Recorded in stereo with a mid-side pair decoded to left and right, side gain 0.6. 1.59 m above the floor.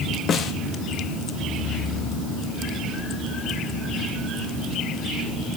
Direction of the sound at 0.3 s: 45° left.